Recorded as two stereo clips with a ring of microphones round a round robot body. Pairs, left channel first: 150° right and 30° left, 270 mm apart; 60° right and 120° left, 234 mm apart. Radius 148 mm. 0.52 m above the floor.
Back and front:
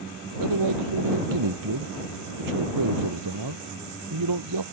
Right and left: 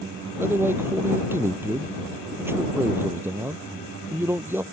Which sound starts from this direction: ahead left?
A man speaking, at 0.4 s.